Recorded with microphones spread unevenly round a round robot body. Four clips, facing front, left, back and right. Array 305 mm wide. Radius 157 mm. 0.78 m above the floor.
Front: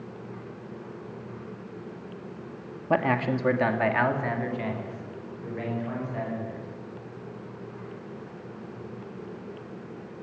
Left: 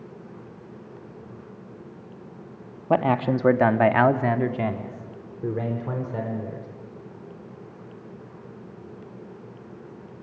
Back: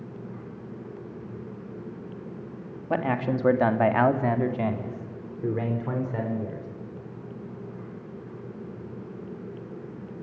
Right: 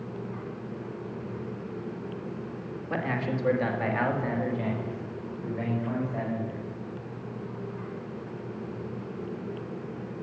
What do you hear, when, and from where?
2.9 s a man speaking: 60° left, 1.7 m; by 6.7 s 130° left, 3.5 m